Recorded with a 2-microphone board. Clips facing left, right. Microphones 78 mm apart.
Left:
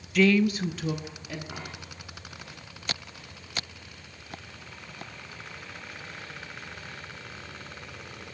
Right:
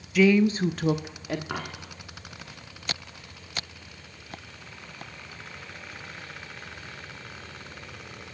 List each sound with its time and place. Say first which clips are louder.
0.1 s a woman speaking: right 2 dB; 5° right (ahead or behind), 0.6 m; by 1.4 s 60° right (ahead or behind), 1.2 m
1.5 s a dropped coin: right 6 dB; 80° right, 2.5 m